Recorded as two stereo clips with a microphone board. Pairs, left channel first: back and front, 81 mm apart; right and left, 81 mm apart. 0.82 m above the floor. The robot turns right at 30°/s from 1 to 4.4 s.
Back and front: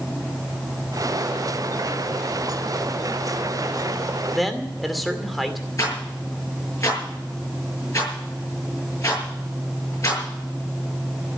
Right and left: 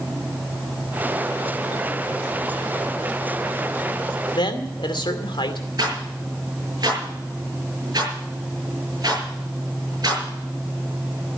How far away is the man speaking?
About 2.5 m.